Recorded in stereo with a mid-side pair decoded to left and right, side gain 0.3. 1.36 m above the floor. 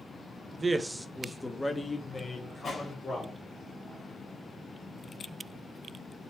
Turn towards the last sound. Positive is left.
turn(degrees=60)